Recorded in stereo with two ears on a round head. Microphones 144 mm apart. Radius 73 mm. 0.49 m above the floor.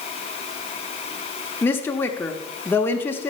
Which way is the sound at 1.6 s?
15° left (ahead or behind).